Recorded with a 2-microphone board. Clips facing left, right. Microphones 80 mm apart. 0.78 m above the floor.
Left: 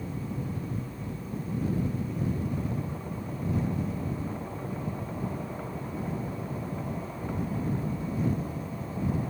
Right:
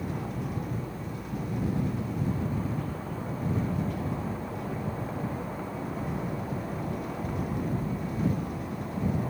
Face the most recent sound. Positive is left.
turn(degrees=-80)